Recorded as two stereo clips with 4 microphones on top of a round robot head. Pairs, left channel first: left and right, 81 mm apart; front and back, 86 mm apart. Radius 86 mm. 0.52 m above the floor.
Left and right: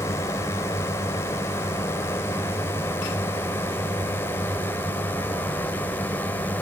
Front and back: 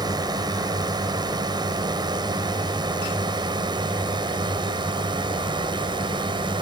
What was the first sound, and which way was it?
A drone, 145° left.